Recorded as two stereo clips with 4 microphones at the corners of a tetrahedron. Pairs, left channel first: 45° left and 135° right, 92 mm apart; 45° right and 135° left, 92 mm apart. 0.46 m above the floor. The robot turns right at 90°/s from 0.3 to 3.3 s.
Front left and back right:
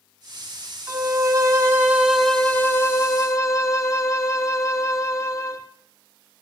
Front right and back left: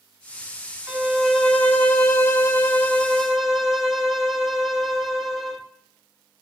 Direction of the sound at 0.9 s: 170° right.